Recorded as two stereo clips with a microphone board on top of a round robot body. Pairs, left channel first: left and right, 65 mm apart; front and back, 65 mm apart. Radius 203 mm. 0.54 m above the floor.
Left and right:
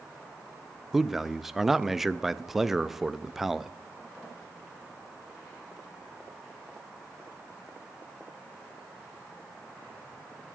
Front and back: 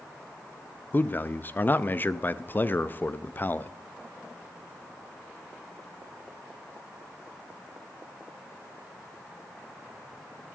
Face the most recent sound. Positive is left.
turn(degrees=-10)